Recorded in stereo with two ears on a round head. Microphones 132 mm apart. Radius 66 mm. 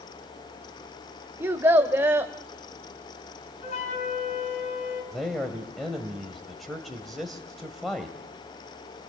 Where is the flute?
45° left (ahead or behind), 4.5 m.